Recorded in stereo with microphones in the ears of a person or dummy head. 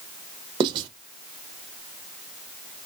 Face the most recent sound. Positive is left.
turn(degrees=-20)  # may be behind; listen again after turning